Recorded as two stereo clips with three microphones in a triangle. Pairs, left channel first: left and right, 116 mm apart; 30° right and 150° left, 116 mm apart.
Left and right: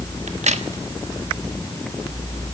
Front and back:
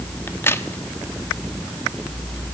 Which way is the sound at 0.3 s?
100° right.